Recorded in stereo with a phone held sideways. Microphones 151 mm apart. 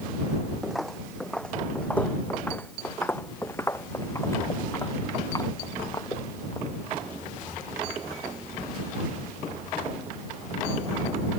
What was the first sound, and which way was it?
Footsteps, centre (ahead or behind).